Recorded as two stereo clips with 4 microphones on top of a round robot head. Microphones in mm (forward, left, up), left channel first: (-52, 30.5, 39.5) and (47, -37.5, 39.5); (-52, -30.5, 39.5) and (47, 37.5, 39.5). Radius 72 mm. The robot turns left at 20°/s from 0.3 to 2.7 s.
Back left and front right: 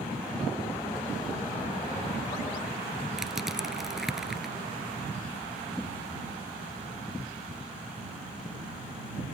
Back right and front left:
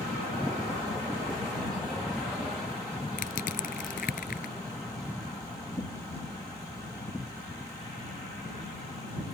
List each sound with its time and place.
3.2 s crushing: 120° right